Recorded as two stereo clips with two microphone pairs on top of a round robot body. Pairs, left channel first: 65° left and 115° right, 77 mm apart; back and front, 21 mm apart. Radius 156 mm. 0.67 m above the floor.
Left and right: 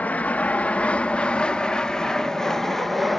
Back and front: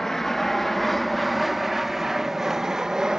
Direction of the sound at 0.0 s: 135° left.